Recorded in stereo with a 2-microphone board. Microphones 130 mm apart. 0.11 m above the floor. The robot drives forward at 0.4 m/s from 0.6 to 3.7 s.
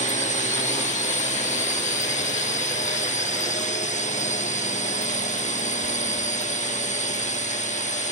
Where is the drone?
70° left (ahead or behind).